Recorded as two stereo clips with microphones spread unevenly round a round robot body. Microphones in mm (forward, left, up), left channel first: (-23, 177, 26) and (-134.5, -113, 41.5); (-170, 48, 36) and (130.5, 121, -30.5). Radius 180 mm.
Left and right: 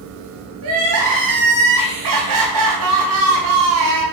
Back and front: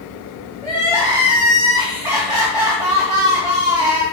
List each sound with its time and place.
0.6 s crying: 80° right, 2.5 m